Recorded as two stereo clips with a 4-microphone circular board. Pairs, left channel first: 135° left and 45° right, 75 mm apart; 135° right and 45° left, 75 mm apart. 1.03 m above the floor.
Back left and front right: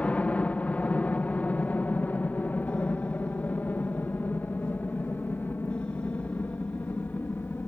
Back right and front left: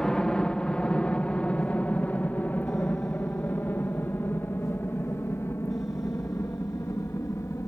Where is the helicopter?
160° left; by 7.7 s 170° right.